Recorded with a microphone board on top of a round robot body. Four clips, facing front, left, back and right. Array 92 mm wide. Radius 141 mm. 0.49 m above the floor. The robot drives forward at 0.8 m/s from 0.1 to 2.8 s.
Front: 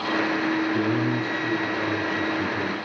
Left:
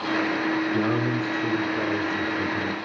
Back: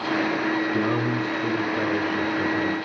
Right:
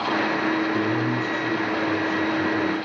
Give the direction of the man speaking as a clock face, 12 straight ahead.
7 o'clock.